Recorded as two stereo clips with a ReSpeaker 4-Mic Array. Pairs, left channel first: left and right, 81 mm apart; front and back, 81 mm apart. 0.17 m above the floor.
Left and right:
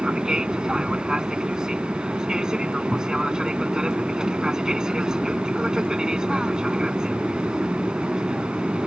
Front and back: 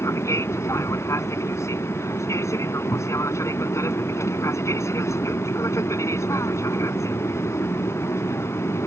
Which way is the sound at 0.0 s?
15° right.